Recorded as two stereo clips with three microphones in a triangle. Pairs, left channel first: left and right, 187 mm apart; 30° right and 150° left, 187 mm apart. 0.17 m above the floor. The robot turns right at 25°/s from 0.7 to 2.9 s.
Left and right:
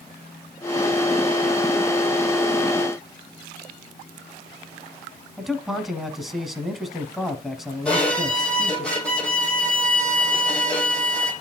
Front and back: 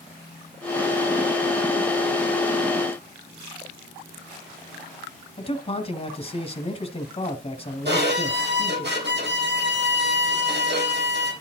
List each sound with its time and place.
5.4 s a man speaking: straight ahead, 1.5 m
7.8 s a violin: 175° left, 4.5 m